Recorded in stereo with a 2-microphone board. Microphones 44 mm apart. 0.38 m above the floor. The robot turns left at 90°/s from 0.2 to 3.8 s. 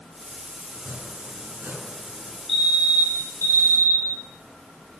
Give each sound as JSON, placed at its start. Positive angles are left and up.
{"t": 0.7, "sound": "chopping", "azimuth_deg": -30, "distance_m": 6.0}
{"t": 2.5, "sound": "a fire alarm", "azimuth_deg": 170, "distance_m": 8.0}